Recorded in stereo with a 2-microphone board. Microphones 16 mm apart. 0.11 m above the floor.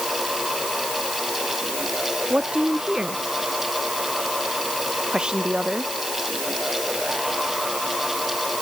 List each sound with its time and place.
2.3 s a woman speaking: 60° right (ahead or behind)